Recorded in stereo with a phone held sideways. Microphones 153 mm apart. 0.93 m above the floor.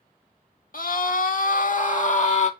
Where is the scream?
65° left (ahead or behind), 2 m; by 2.5 s 50° left (ahead or behind), 2.5 m.